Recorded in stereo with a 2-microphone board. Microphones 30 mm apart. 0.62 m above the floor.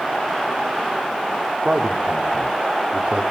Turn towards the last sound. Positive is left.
turn(degrees=-40)  # may be behind; listen again after turning